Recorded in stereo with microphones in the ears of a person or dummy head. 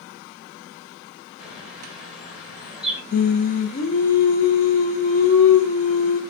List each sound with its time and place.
1.4 s a bird: centre (ahead or behind), 1.3 m
3.1 s singing: 45° left (ahead or behind), 0.6 m